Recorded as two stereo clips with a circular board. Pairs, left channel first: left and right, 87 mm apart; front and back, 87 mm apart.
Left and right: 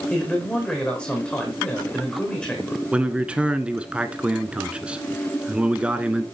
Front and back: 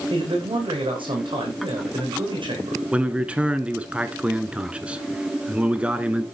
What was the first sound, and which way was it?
A man speaking, 170° left.